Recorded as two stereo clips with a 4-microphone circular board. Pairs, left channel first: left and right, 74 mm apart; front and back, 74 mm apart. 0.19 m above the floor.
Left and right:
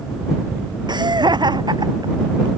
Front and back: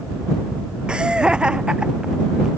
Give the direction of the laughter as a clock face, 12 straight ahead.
3 o'clock.